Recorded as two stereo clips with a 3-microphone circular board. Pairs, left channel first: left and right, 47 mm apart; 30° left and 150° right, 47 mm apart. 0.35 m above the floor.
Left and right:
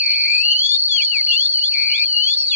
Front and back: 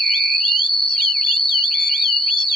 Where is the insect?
55° right, 1.5 m.